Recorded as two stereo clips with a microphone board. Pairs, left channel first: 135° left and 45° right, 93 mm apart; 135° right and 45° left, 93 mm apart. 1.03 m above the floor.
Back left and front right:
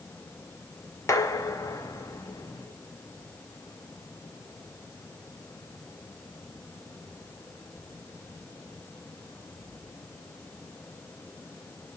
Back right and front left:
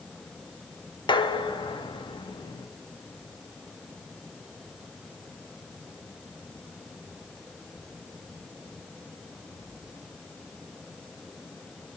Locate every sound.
1.1 s dishes clattering: 170° right, 0.9 m